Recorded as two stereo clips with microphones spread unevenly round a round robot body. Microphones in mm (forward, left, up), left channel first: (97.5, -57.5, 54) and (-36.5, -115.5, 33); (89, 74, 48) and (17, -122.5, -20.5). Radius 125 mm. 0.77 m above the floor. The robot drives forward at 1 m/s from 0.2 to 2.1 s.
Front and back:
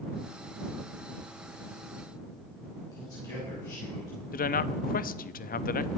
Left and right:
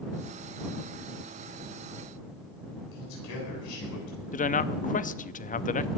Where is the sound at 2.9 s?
95° left, 8 m.